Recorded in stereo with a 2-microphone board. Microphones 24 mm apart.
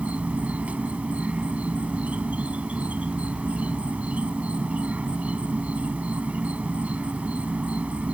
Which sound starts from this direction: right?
An insect, at 0.0 s.